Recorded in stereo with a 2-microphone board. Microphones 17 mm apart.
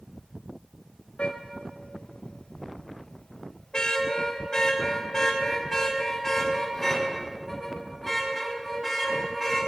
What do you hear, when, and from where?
1.2 s a car horn: 70° left (ahead or behind), 3 m; by 9.6 s 5° left (ahead or behind), 7 m